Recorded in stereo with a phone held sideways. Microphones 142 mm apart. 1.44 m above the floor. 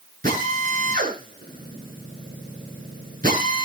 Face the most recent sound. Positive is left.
turn(degrees=-70)  # may be behind; listen again after turning